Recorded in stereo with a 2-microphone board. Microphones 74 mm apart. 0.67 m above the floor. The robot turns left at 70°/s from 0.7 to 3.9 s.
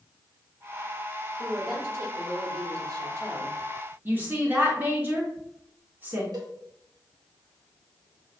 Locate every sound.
1.4 s a woman speaking: straight ahead, 1.9 m; by 4.0 s 175° right, 1.9 m
4.0 s a woman speaking: 25° right (ahead or behind), 1.0 m
6.3 s a cowbell: 65° right (ahead or behind), 0.8 m